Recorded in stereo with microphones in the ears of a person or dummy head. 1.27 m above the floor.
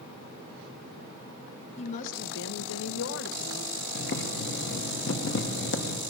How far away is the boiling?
About 1.3 m.